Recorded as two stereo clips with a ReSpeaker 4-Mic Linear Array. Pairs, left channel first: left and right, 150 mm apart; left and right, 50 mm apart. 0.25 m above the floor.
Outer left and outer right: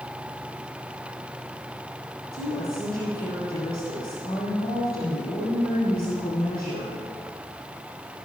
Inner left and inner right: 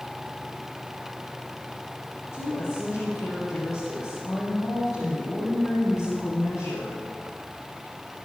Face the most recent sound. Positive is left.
turn(degrees=80)